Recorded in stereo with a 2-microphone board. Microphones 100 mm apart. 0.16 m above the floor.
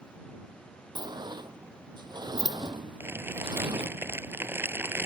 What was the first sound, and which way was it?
A sliding door, 45° right (ahead or behind).